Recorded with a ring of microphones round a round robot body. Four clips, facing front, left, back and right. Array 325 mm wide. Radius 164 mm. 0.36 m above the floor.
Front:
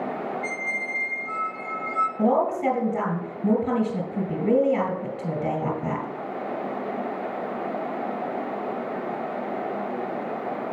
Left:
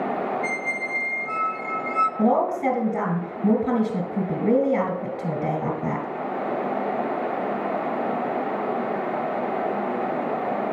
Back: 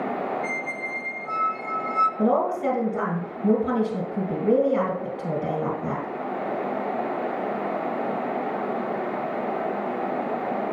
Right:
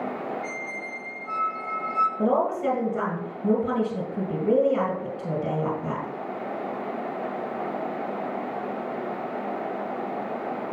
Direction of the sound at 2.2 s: 55° left.